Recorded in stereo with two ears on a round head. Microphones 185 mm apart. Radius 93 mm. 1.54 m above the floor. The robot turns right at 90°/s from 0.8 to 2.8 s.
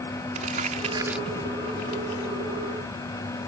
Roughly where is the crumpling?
Right.